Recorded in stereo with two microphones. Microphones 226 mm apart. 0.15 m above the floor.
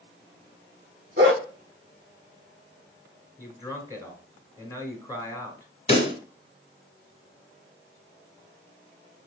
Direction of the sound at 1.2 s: 45° right (ahead or behind).